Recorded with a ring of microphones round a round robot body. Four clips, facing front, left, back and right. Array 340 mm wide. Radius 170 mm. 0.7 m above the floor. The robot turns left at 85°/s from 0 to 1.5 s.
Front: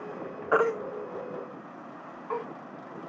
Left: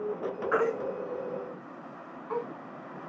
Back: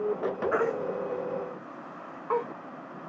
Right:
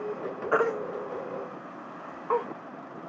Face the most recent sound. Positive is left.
turn(degrees=-110)